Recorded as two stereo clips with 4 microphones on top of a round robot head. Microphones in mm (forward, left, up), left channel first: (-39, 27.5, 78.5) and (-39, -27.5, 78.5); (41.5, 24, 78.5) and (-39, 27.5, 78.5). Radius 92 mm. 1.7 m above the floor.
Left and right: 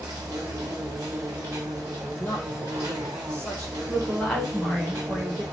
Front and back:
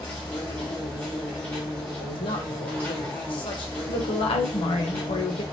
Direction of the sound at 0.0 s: 75° right.